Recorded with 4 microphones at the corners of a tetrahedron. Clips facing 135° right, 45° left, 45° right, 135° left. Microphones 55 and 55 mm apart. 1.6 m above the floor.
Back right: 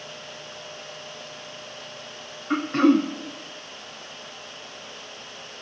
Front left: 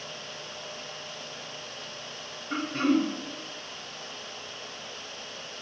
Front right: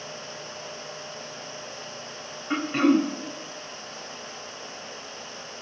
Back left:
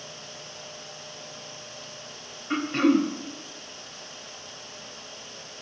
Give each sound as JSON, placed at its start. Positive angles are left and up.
{"t": 2.5, "sound": "throat clearing", "azimuth_deg": -130, "distance_m": 0.7}